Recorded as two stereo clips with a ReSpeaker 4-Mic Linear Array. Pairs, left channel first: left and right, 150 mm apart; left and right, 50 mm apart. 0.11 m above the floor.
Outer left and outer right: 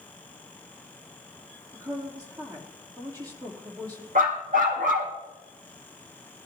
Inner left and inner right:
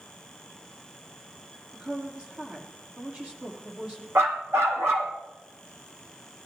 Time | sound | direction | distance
1.7 | a woman speaking | 25° right (ahead or behind) | 3.5 m
4.2 | a dog barking | 75° right (ahead or behind) | 2.5 m